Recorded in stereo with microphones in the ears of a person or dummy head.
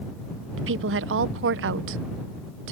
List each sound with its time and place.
0.6 s a woman speaking: 70° right (ahead or behind)